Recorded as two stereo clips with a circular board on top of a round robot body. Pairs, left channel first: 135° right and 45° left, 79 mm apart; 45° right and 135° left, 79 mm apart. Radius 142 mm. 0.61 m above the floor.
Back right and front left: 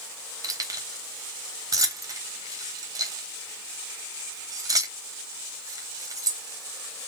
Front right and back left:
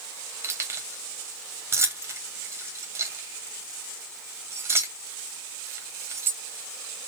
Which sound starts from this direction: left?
Keys jangling, at 0.4 s.